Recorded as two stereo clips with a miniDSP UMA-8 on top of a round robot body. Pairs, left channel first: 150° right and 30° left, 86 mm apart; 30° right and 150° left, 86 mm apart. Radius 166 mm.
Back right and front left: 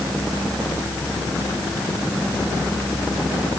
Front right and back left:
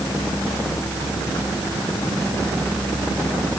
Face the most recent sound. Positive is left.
No sound to turn to.